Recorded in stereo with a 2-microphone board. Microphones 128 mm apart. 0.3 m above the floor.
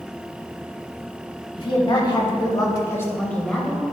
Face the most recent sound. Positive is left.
turn(degrees=0)  # may be behind; listen again after turning